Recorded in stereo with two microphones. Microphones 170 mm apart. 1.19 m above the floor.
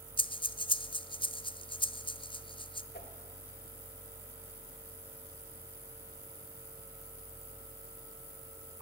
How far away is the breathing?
About 0.5 m.